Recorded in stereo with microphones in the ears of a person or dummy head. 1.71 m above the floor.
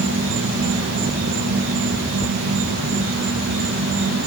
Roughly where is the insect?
Right.